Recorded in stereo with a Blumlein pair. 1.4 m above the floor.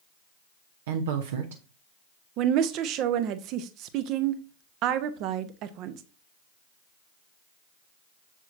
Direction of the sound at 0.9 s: 60° right.